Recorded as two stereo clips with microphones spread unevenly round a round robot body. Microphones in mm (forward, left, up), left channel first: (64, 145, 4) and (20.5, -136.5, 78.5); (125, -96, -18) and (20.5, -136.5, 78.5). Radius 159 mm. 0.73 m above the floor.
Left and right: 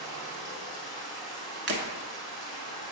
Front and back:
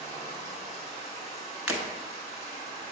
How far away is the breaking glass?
About 1.0 m.